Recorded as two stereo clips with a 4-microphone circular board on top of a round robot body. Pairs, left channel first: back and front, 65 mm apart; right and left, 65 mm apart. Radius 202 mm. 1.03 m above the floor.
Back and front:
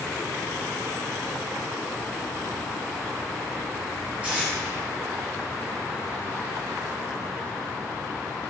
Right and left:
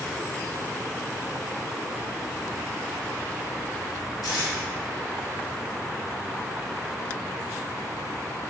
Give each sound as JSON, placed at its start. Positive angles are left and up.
{"t": 4.2, "sound": "tape being pulled", "azimuth_deg": -70, "distance_m": 2.5}